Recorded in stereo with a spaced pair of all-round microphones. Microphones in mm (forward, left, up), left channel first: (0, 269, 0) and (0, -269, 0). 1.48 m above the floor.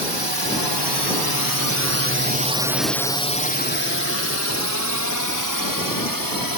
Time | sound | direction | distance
0.0 | a drone | 55° right (ahead or behind) | ?